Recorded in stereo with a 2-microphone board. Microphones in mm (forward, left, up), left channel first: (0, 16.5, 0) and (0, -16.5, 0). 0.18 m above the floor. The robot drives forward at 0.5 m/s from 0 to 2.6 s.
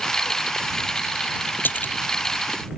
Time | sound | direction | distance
1.6 | a splash | 75° left (ahead or behind) | ?